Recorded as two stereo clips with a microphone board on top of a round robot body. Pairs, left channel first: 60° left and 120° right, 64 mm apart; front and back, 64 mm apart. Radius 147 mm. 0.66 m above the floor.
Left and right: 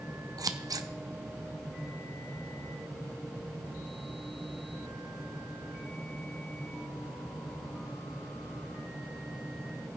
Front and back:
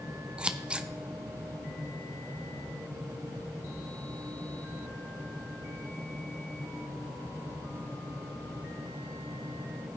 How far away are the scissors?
About 0.9 m.